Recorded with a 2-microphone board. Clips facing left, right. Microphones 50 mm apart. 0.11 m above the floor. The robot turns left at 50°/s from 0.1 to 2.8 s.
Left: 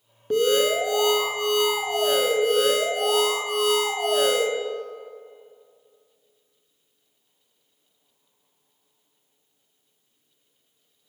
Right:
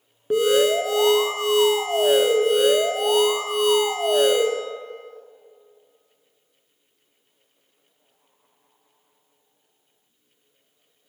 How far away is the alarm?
About 0.8 m.